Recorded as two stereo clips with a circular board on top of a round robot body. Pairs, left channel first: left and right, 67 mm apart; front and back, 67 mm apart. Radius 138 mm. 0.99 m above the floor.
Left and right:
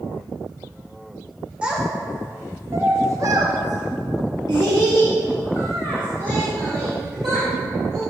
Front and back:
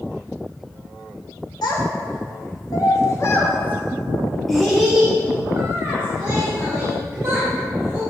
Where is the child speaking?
15° right, 2.5 m; by 8.0 s 135° right, 4 m.